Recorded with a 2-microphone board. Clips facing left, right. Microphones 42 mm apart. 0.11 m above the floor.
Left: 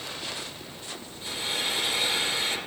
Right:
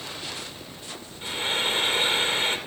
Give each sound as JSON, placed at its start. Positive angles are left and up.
{"t": 1.2, "sound": "frying", "side_deg": -35, "distance_m": 3.5}